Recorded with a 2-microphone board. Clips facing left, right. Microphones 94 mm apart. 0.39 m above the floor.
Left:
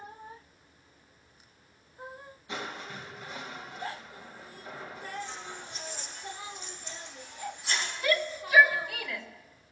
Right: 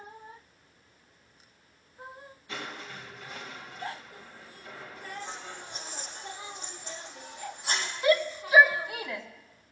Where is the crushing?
20° left (ahead or behind), 2.0 m.